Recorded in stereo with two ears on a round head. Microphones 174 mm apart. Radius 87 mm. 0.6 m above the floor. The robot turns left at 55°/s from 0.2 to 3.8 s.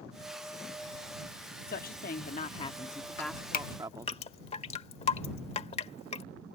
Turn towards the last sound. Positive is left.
turn(degrees=30)  # may be behind; listen again after turning